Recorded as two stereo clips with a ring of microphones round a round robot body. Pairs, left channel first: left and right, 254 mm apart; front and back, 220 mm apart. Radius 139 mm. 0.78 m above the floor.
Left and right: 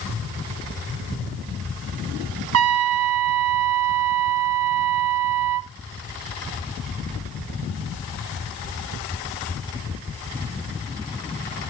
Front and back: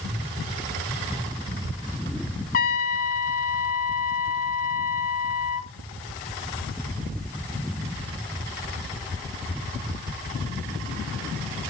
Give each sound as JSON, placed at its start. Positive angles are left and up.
{"t": 2.5, "sound": "a trumpet", "azimuth_deg": -55, "distance_m": 0.5}